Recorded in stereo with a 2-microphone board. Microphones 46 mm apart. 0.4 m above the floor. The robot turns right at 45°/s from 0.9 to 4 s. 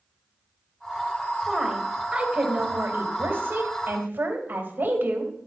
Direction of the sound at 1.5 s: 175° right.